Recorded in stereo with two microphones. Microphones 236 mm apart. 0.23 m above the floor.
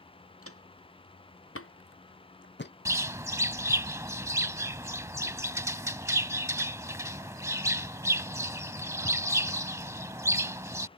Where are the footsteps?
75° left (ahead or behind); by 2.7 s 45° left (ahead or behind).